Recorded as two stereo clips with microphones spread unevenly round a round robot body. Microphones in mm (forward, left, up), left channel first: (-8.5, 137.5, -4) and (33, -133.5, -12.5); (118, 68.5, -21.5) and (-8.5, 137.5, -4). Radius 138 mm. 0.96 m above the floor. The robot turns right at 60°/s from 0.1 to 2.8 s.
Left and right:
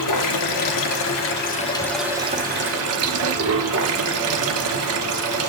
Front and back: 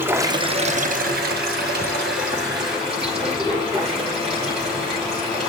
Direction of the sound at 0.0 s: 75° left.